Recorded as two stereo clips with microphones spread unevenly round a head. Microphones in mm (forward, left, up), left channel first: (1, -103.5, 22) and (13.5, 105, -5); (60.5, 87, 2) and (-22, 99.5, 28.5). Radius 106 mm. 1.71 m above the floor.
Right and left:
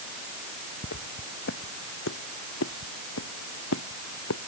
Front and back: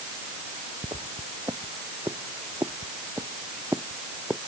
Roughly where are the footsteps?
Behind right.